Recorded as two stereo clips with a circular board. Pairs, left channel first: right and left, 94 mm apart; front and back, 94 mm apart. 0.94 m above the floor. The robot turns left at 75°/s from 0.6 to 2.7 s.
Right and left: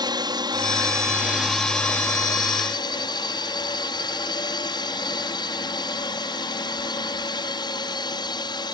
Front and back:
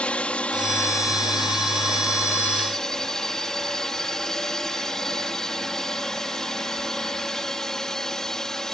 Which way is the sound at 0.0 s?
75° left.